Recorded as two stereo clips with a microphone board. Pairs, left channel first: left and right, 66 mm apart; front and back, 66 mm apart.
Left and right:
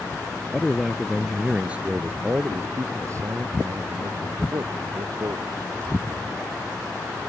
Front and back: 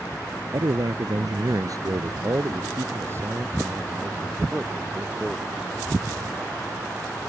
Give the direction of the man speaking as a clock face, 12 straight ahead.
6 o'clock.